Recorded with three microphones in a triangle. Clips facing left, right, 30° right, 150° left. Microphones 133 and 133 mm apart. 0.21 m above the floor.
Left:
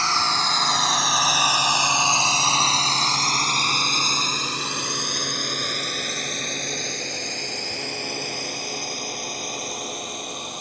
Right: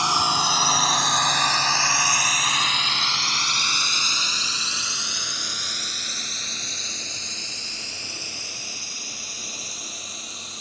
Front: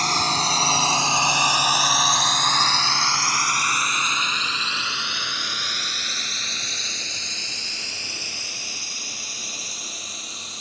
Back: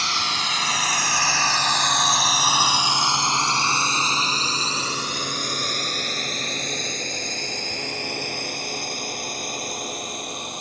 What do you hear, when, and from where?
0.0 s a drone: 25° right; by 10.6 s 120° left